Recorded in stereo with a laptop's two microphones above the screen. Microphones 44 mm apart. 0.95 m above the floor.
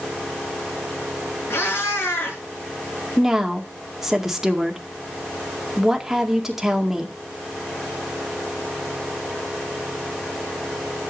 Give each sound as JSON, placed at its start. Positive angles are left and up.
{"t": 1.5, "sound": "a cat meowing", "side_deg": 65, "distance_m": 6.0}
{"t": 3.2, "sound": "a woman speaking", "side_deg": -5, "distance_m": 2.0}